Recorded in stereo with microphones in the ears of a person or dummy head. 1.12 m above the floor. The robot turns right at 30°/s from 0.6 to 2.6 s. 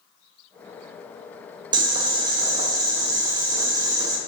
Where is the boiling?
25° right (ahead or behind), 0.7 m; by 4.2 s 20° right (ahead or behind), 0.7 m.